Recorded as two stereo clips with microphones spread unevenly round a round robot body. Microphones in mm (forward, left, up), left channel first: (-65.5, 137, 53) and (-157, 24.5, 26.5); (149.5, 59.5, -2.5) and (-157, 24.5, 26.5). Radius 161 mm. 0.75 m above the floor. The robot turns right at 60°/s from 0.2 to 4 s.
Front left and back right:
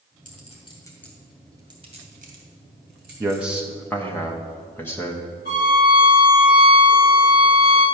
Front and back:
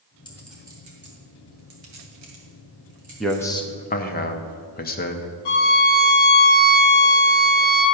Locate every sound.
0.2 s a clink: 80° left, 2.5 m; by 3.6 s 75° right, 2.5 m
3.2 s a man speaking: 80° right, 0.7 m; by 5.3 s 30° right, 0.7 m
5.5 s a violin: 5° right, 1.6 m